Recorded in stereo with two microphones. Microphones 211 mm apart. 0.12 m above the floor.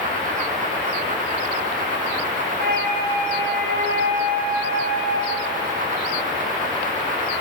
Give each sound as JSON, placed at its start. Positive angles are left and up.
{"t": 2.6, "sound": "a flute", "side_deg": -50, "distance_m": 7.5}